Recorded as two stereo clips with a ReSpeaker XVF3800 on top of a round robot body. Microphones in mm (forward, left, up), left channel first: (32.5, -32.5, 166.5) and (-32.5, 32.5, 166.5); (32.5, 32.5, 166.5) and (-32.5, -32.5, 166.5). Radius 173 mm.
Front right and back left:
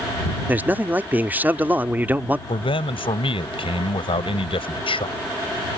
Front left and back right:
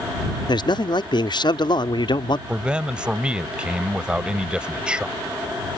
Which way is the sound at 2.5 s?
55° right.